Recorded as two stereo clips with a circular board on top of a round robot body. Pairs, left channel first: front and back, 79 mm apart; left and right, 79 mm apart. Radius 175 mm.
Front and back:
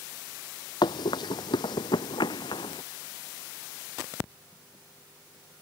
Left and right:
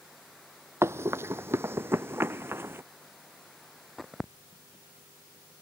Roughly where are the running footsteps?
Ahead right.